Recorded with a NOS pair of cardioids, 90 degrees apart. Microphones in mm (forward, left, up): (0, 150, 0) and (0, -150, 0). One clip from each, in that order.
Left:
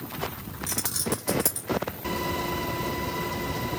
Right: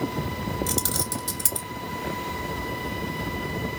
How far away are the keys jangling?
About 4 m.